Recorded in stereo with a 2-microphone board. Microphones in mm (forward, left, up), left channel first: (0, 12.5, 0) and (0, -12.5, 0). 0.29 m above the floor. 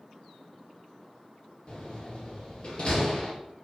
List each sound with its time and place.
1.7 s a door slam: 35° left (ahead or behind), 3.5 m